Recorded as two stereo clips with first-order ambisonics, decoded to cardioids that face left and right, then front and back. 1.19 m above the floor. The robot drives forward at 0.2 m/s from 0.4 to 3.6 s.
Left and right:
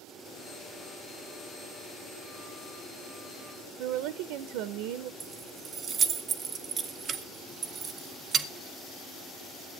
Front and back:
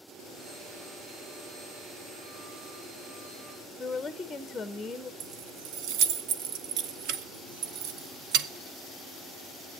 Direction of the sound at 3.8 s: 85° right.